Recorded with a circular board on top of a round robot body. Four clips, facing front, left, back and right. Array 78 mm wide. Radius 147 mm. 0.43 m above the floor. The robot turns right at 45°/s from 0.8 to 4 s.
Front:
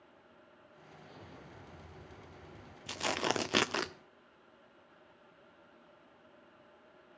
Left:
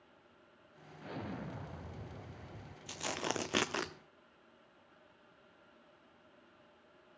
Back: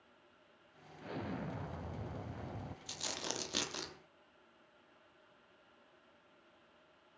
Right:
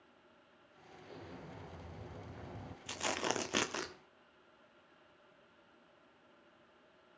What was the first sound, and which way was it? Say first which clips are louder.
An explosion: left 8 dB, back 12 dB; 130° left.